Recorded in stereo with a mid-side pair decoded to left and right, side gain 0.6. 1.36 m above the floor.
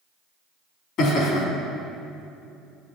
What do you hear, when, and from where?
1.0 s laughter: 60° left, 3.5 m